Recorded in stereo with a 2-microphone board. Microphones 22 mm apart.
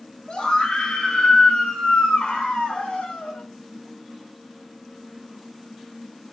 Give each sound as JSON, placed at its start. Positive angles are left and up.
{"t": 0.3, "sound": "a scream", "side_deg": 55, "distance_m": 6.0}